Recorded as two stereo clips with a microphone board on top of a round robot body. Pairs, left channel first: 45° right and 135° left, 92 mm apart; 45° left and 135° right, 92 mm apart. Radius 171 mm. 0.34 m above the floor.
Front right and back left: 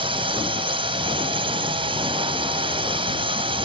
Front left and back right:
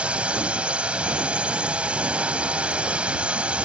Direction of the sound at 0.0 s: 145° left.